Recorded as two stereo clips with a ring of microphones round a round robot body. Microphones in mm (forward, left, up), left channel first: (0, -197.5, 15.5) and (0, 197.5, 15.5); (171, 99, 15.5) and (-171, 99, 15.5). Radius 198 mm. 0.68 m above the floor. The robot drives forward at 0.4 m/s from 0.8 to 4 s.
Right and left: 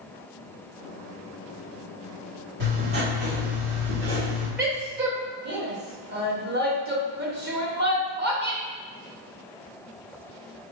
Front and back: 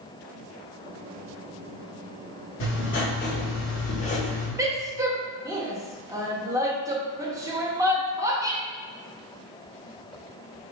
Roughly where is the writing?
Ahead left.